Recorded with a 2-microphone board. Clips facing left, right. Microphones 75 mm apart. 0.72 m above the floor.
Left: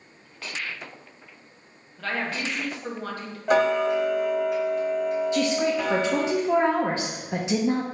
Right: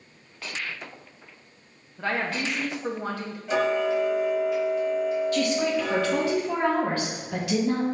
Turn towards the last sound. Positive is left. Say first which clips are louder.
# left 1 dB
turn(degrees=20)  # may be behind; listen again after turning